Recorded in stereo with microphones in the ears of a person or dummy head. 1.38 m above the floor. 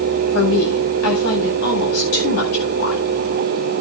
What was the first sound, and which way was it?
A woman speaking, 90° left.